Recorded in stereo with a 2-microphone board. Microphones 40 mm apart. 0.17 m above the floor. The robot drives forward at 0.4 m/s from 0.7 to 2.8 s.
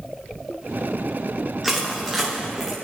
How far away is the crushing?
About 4.5 m.